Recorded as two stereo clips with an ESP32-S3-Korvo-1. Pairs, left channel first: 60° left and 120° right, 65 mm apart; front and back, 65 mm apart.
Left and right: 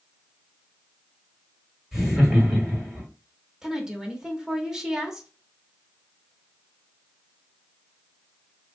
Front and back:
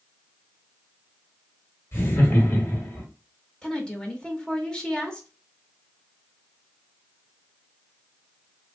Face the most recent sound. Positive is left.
turn(degrees=-50)